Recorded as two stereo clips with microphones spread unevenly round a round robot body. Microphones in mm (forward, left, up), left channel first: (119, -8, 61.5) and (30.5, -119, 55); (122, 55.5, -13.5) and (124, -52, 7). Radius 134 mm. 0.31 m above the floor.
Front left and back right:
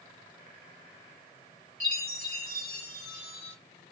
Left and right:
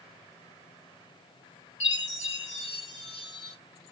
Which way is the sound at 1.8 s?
145° left.